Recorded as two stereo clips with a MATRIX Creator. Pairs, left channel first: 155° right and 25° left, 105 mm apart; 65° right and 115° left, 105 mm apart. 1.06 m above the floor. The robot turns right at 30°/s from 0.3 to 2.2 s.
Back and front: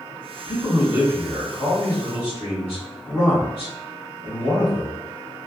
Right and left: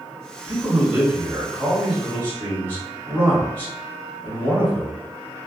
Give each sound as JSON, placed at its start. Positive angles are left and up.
{"t": 0.5, "sound": "a man speaking", "azimuth_deg": 170, "distance_m": 1.7}